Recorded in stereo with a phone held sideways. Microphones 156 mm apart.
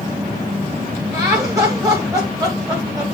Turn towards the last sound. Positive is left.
turn(degrees=-20)  # may be behind; listen again after turning